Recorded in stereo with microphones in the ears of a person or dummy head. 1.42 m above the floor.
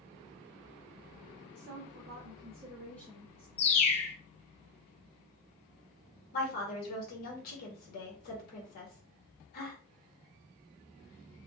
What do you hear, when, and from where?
1.6 s a woman speaking: 60° right (ahead or behind), 0.7 m; by 3.5 s 25° left (ahead or behind), 0.7 m
3.6 s a bird: 35° left (ahead or behind), 0.6 m
6.3 s a woman speaking: 45° left (ahead or behind), 1.2 m